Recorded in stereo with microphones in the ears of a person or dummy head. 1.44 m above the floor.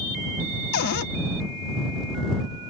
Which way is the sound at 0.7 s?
65° left (ahead or behind).